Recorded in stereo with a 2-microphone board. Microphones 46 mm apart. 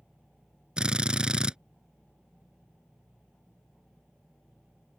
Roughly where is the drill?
Right.